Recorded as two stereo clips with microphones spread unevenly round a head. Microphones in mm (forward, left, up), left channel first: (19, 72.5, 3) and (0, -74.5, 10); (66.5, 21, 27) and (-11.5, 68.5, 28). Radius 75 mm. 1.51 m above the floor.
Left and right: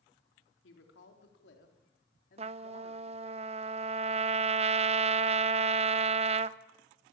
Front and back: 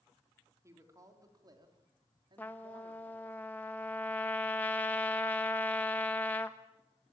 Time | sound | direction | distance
0.6 | a woman speaking | 90° left | 4 m
2.4 | a trumpet | 105° right | 0.6 m